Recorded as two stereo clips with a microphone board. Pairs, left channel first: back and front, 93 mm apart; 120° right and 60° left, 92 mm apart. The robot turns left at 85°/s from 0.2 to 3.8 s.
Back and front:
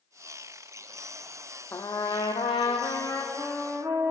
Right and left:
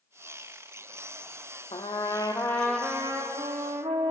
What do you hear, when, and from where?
1.7 s a trumpet: 120° right, 1.0 m; by 4.1 s 60° left, 1.0 m